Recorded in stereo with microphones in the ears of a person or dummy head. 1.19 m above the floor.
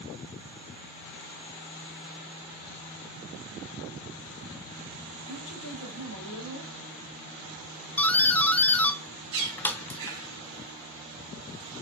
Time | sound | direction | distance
5.3 | a woman speaking | 85° left | 2.5 m
8.0 | a doorbell | 10° left (ahead or behind) | 0.6 m
9.3 | a bird | 80° right | 2 m